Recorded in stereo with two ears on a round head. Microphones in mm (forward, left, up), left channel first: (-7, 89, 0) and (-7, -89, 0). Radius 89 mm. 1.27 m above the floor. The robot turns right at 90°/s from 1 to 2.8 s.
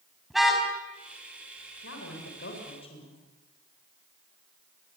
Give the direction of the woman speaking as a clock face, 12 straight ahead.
10 o'clock.